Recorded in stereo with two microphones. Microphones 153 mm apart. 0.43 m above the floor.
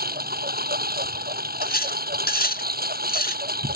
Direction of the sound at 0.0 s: 80° right.